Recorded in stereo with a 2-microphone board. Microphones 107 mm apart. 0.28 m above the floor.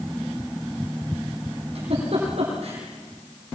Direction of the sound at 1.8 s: 65° right (ahead or behind).